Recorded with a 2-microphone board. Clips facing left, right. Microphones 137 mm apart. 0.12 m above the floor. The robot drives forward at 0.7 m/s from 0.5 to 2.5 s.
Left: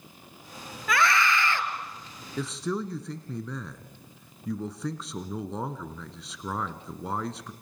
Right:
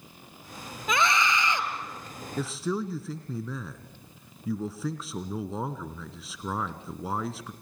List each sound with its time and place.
0.9 s a scream: 20° right (ahead or behind), 2.5 m
2.4 s a man speaking: centre (ahead or behind), 1.1 m; by 7.5 s 5° right (ahead or behind), 1.1 m